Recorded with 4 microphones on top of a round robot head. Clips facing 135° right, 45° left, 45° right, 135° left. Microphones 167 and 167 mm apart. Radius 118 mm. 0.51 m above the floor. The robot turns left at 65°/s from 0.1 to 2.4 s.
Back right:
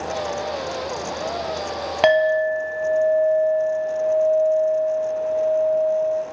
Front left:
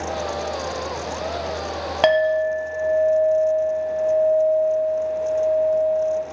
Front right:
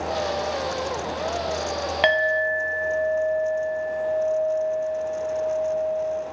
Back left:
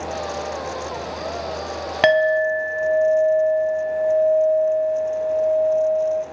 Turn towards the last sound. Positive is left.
turn(degrees=115)